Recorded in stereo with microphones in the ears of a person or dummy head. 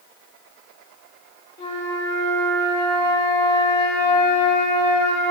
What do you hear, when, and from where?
1.6 s a flute: 35° left (ahead or behind), 0.7 m